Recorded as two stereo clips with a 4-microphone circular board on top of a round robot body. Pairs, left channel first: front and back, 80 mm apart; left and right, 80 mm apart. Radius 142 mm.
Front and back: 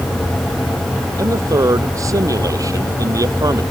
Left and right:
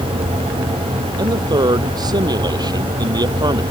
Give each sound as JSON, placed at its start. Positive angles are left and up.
{"t": 1.2, "sound": "a man speaking", "azimuth_deg": -130}